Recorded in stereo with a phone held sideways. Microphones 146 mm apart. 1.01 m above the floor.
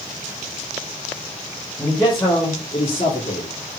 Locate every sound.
1.8 s a man speaking: 15° left (ahead or behind), 1.5 m; by 3.5 s 55° left (ahead or behind), 2 m